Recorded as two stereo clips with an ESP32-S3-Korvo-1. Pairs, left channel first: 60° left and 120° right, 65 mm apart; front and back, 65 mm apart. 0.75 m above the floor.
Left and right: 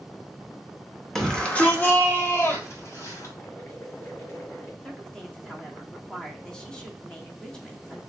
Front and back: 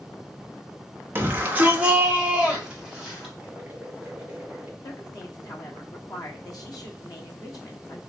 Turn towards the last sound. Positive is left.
turn(degrees=-15)